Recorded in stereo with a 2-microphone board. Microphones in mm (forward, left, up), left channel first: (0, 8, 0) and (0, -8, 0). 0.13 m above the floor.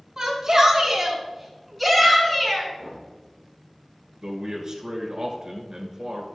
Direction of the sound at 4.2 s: 40° right (ahead or behind).